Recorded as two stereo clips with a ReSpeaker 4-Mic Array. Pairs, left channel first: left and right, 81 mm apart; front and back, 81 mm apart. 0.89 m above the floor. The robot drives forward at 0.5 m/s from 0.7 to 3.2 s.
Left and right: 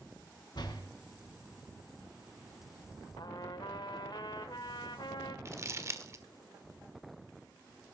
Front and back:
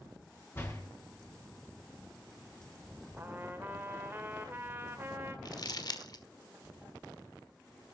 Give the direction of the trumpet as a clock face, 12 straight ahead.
8 o'clock.